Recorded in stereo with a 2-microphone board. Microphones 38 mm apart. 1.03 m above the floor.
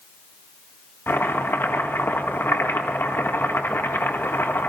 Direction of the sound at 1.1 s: 80° left.